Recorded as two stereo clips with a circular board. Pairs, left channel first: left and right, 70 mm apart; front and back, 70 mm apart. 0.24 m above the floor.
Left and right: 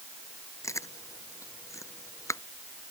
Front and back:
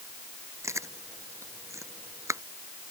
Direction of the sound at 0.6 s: 135° left.